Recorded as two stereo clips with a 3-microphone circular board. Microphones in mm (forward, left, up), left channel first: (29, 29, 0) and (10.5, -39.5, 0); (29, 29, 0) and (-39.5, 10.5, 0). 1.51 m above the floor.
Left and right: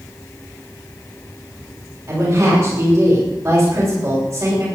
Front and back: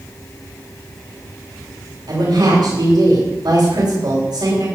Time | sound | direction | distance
2.1 | a woman speaking | 160° right | 7.5 m